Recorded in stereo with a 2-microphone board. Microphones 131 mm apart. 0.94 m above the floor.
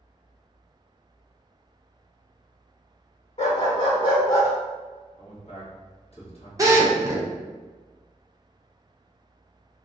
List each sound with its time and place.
3.4 s a dog barking: 55° left (ahead or behind), 1.2 m; by 4.5 s 20° left (ahead or behind), 1.1 m
5.2 s a man speaking: 50° left (ahead or behind), 0.9 m
6.6 s a drill: 25° right (ahead or behind), 0.6 m